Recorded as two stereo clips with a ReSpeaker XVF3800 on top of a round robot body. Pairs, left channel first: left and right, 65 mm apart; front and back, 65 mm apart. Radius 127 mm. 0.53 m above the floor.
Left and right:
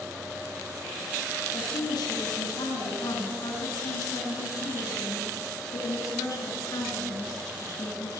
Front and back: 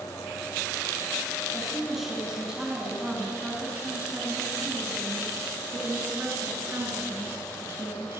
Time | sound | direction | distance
1.5 | a woman speaking | 90° left | 6.5 m